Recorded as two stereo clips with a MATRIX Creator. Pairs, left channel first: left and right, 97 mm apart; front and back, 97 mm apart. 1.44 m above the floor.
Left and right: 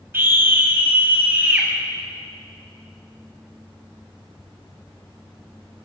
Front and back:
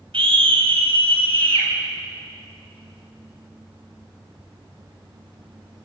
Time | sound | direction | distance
0.1 | a scream | 155° right | 7.5 m